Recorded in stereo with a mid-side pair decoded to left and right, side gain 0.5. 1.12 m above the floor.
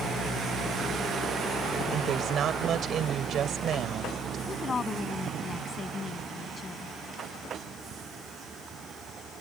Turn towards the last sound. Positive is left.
turn(degrees=35)